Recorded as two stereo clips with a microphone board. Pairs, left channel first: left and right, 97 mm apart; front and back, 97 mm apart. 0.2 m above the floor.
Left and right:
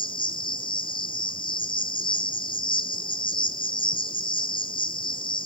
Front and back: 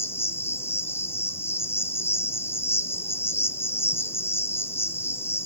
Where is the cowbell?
I don't hear a cowbell.